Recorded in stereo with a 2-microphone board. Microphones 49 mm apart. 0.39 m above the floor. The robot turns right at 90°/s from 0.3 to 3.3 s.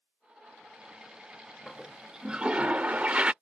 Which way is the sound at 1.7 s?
10° left (ahead or behind).